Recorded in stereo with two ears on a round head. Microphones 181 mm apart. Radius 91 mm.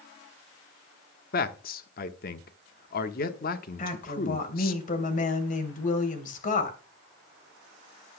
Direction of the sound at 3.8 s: 40° left (ahead or behind).